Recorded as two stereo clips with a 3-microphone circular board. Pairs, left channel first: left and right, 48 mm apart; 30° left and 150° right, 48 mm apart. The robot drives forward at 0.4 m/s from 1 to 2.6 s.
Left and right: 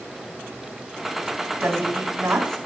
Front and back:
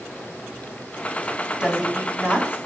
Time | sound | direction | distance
1.6 | a woman speaking | 80° right | 3 m